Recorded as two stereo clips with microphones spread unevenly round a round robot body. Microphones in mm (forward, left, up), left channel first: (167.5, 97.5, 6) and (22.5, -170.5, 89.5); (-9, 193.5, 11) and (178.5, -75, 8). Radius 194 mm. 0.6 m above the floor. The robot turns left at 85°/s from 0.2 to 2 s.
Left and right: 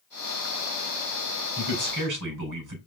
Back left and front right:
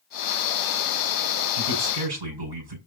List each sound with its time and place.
1.6 s a man speaking: 50° right, 5.5 m; by 2.8 s 85° right, 5.5 m